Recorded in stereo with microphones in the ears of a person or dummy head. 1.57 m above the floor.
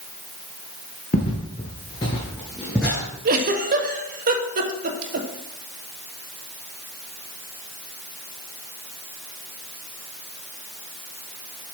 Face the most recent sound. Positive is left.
turn(degrees=-50)  # may be behind; listen again after turning